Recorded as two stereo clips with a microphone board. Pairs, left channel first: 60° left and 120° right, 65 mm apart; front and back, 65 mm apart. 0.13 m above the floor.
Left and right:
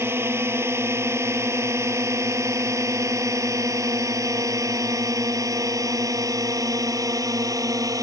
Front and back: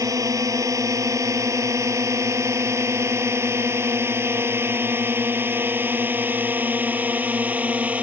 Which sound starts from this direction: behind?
A drone, at 0.0 s.